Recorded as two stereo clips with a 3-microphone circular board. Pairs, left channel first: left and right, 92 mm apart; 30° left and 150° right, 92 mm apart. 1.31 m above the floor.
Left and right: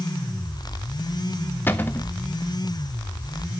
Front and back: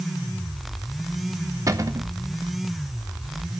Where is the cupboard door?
160° left, 0.9 m.